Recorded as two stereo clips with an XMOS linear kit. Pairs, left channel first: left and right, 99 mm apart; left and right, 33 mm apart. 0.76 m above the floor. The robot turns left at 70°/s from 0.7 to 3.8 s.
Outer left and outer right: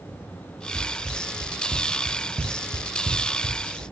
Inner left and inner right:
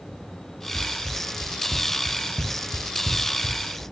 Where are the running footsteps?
20° right (ahead or behind), 1.9 m; by 3.9 s 65° right (ahead or behind), 1.8 m.